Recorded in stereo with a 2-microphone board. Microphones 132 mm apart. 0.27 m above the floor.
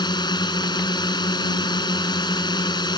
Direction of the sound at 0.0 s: 35° left (ahead or behind).